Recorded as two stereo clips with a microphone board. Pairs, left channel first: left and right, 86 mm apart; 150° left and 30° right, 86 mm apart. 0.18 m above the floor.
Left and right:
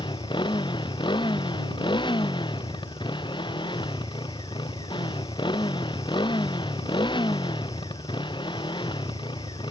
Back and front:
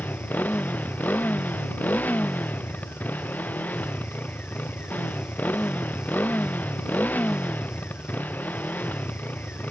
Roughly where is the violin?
I don't hear a violin.